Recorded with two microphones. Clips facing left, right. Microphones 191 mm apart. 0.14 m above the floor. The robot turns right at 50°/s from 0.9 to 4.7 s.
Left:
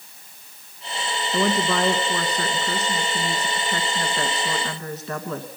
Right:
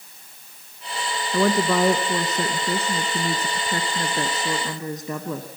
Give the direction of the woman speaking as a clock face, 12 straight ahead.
6 o'clock.